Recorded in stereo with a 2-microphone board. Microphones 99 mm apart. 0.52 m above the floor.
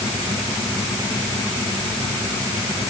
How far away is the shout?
I don't hear a shout.